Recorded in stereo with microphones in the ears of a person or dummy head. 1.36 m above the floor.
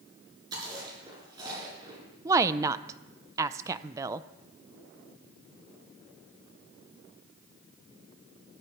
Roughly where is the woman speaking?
Centre.